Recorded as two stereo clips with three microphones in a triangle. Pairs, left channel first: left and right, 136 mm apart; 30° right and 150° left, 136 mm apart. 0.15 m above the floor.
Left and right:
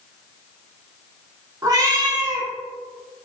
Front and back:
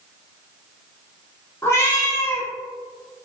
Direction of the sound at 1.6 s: 75° right.